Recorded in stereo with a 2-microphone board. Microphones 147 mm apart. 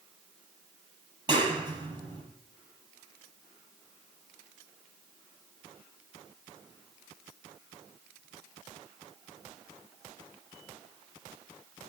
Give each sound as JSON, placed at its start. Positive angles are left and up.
{"t": 1.3, "sound": "a clap", "side_deg": -30, "distance_m": 5.0}